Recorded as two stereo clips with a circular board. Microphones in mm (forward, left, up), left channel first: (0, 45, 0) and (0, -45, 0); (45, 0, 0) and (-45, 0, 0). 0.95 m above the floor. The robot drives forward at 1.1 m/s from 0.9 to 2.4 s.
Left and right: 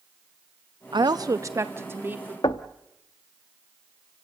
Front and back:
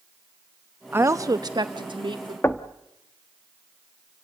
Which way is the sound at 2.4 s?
65° left.